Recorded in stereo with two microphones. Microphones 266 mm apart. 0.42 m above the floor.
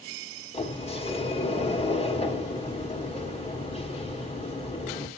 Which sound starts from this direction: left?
A sliding door, at 0.5 s.